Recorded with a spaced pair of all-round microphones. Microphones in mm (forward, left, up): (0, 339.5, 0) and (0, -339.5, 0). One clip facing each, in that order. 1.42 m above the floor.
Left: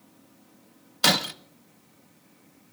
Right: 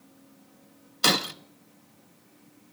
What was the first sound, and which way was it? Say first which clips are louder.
Breaking glass: even; 20° left (ahead or behind).